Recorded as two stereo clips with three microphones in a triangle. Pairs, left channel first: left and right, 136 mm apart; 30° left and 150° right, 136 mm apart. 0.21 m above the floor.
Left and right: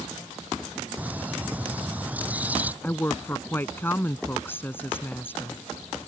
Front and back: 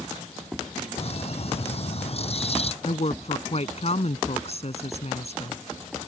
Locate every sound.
1.0 s a bird: 10° right
2.8 s a woman speaking: 20° left